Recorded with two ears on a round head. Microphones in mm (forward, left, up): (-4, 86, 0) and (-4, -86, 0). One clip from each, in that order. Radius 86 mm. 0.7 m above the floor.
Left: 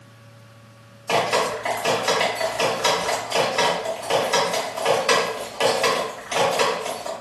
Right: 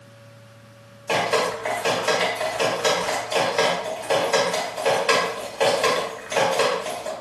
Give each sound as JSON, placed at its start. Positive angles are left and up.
{"t": 1.1, "sound": "dripping", "side_deg": 10, "distance_m": 1.8}